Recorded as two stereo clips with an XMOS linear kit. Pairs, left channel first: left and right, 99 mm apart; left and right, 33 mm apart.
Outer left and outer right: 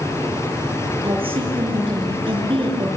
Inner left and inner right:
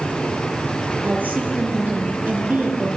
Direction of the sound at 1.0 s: 60° right (ahead or behind).